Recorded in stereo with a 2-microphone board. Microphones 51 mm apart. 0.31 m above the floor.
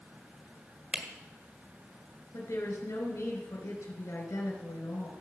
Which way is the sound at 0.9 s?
25° right (ahead or behind).